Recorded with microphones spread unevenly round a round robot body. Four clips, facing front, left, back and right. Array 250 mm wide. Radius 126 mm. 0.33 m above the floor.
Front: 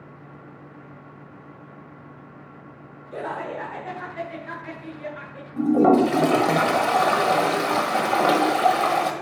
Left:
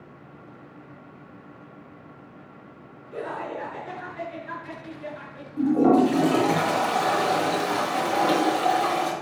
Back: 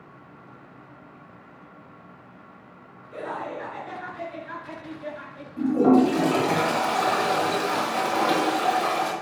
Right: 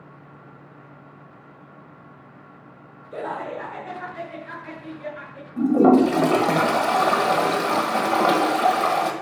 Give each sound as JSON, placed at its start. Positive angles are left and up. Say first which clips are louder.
{"t": 3.1, "sound": "laughter", "louder": "right 2 dB, front 2 dB", "azimuth_deg": -45, "distance_m": 2.0}
{"t": 5.6, "sound": "a toilet flushing", "louder": "right 3 dB, front 1 dB", "azimuth_deg": -45, "distance_m": 1.6}